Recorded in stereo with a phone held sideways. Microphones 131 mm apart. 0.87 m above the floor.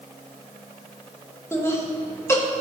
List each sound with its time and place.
1.5 s laughter: 20° left (ahead or behind), 1.2 m